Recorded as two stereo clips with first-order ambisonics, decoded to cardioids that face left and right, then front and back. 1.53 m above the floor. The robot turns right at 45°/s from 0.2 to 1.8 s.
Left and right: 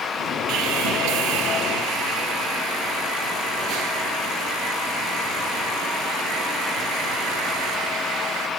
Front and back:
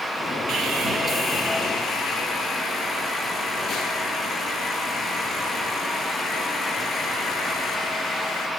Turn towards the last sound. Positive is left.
turn(degrees=-65)